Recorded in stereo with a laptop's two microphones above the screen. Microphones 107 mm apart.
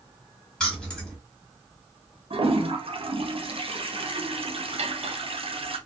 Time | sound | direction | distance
0.6 | keys jangling | 5° left (ahead or behind) | 2 m
2.3 | a toilet flushing | 60° right (ahead or behind) | 0.7 m
4.8 | cutlery clinking | 80° right | 1.0 m